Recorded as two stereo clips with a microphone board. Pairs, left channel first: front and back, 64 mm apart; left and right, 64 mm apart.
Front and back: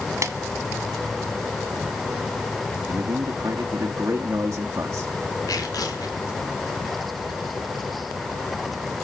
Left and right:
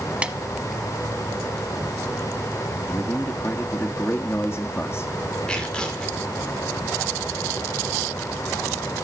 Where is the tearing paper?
15° left, 3.5 m.